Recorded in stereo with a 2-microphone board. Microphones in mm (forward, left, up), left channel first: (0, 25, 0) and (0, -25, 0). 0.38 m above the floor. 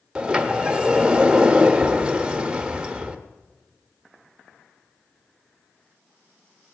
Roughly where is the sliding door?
Centre.